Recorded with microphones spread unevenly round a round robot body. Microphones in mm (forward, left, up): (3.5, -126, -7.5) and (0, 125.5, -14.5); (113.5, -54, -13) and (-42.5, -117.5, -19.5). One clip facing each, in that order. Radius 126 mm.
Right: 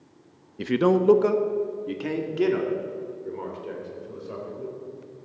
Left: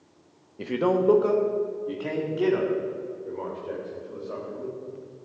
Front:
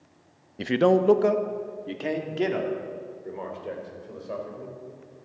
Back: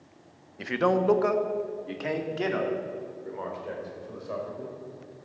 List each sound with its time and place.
0.6 s a man speaking: 30° right, 0.6 m; by 4.8 s 40° right, 4.5 m